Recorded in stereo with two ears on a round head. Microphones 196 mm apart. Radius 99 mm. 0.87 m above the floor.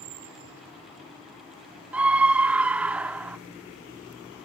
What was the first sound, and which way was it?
A scream, 5° right (ahead or behind).